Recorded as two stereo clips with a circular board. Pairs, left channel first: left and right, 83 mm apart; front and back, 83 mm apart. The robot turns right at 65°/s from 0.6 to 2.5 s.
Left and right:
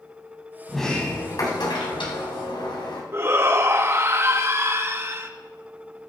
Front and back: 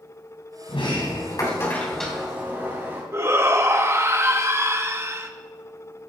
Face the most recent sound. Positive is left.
turn(degrees=-135)